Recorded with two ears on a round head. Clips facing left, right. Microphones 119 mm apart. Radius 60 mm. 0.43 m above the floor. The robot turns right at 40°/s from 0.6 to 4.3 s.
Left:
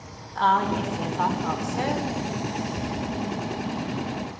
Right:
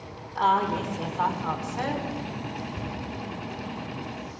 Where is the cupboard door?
5° left (ahead or behind), 1.9 m; by 3.0 s 10° left (ahead or behind), 1.9 m.